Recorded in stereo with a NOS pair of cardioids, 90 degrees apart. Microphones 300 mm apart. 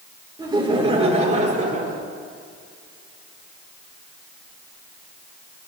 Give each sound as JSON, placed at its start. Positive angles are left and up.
{"t": 0.4, "sound": "laughter", "azimuth_deg": -15, "distance_m": 3.5}